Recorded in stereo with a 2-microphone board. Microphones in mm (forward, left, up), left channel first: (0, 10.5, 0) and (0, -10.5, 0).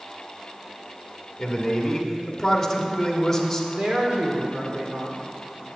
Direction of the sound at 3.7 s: 60° right (ahead or behind).